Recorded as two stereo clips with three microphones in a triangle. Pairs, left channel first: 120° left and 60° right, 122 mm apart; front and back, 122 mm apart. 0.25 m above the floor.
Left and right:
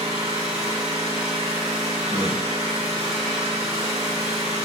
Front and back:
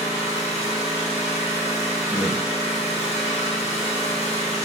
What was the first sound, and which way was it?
An engine running, 25° left.